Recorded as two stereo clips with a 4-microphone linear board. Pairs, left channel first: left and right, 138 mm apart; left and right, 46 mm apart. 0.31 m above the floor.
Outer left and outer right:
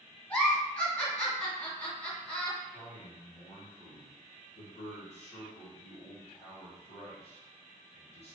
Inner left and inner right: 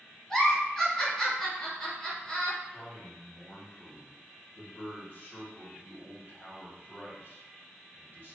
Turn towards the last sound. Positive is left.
turn(degrees=50)  # may be behind; listen again after turning